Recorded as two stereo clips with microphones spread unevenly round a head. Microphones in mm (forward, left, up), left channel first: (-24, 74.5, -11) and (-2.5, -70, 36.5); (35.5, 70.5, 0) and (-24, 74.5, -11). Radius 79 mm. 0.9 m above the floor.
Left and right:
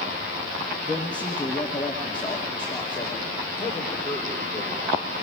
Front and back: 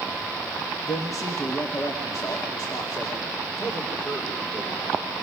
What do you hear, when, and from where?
0.9 s a man speaking: 30° left, 1.6 m; by 5.1 s 25° left, 4.5 m